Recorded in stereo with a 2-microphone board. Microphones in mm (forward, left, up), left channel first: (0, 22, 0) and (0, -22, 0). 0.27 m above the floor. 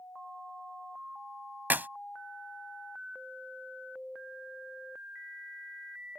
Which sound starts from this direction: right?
A clap, at 1.7 s.